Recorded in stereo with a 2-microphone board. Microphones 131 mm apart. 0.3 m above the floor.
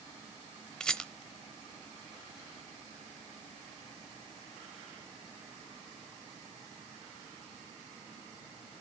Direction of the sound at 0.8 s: 5° left (ahead or behind).